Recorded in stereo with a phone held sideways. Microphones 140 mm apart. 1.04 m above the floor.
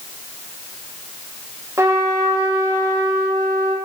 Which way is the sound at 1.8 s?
20° right (ahead or behind).